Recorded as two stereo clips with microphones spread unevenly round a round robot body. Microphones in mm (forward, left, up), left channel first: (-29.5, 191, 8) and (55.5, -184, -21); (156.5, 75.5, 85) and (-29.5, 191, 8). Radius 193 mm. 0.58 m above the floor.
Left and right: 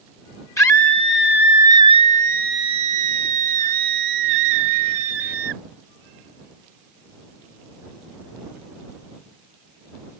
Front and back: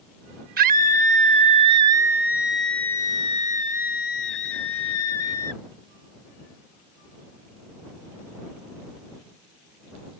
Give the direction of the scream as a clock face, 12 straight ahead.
6 o'clock.